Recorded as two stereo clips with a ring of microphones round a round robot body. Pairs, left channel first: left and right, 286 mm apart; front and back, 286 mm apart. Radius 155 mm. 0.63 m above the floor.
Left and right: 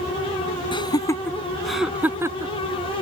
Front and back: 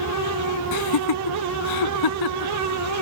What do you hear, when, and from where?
0.7 s laughter: 15° left; by 2.5 s 15° right